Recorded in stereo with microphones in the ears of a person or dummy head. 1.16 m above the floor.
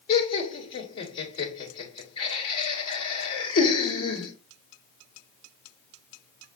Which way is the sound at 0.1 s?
45° left (ahead or behind).